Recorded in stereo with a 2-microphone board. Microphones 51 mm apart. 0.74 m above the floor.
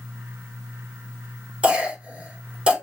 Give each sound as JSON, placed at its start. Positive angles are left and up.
{"t": 1.6, "sound": "a cough", "side_deg": -20, "distance_m": 3.0}